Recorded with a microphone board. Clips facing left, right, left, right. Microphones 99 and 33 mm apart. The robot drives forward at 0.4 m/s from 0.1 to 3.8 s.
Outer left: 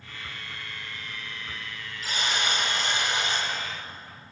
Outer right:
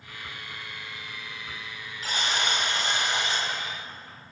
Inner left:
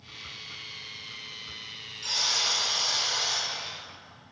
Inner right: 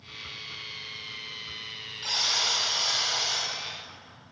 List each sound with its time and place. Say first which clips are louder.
2.0 s a buzzer: even, inner right 1 dB; 50° right (ahead or behind), 1.5 m; by 3.5 s 35° right (ahead or behind), 1.9 m